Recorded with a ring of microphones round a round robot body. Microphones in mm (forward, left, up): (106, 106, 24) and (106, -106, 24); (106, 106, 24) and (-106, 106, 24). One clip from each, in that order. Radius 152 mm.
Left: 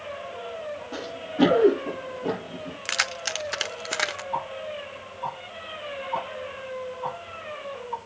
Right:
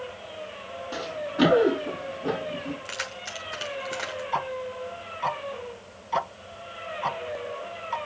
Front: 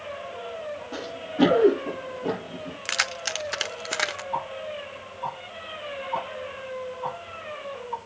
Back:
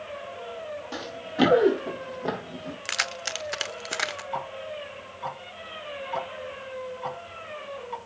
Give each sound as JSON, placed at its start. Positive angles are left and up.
{"t": 0.9, "sound": "running footsteps", "azimuth_deg": -155, "distance_m": 5.0}
{"t": 2.9, "sound": "keys jangling", "azimuth_deg": 90, "distance_m": 0.9}
{"t": 4.3, "sound": "ticking", "azimuth_deg": -120, "distance_m": 0.6}